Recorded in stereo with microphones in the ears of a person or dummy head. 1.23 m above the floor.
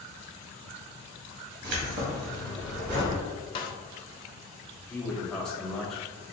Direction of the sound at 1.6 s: 60° right (ahead or behind).